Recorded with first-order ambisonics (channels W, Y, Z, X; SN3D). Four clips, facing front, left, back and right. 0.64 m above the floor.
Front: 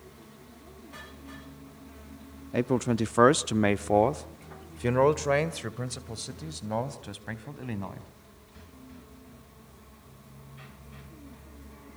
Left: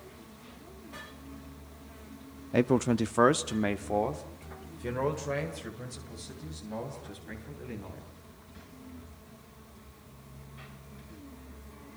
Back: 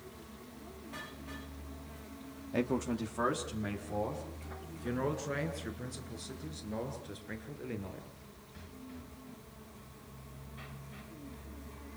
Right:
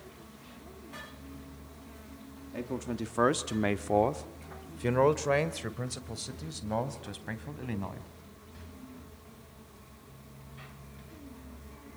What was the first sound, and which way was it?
A man speaking, 70° left.